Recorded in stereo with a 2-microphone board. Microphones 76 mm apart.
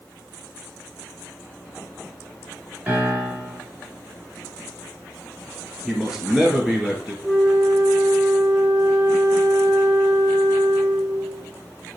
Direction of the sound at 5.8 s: 5° right (ahead or behind).